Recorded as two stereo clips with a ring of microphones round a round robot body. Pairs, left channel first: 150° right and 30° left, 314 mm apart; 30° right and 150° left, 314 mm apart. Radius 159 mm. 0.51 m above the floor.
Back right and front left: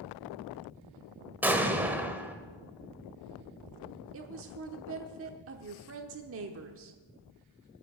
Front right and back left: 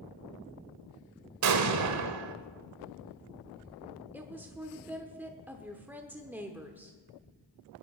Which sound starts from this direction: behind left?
An explosion, at 1.4 s.